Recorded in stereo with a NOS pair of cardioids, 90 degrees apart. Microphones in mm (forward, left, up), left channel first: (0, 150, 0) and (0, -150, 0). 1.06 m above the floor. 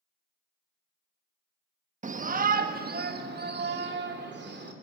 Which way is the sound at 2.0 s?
25° right.